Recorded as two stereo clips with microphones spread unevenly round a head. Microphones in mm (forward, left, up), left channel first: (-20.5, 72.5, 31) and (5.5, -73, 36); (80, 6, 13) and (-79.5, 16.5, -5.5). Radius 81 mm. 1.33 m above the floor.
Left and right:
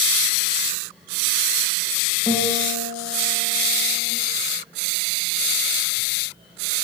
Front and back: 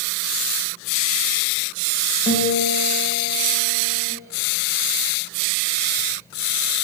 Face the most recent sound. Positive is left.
turn(degrees=40)